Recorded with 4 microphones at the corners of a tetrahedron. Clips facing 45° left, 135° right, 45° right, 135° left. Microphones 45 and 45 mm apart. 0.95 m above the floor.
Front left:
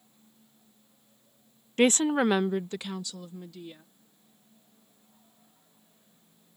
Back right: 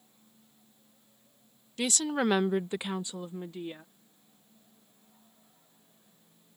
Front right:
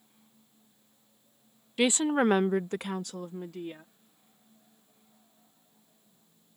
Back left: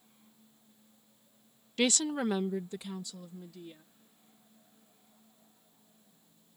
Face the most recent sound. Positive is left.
turn(degrees=-80)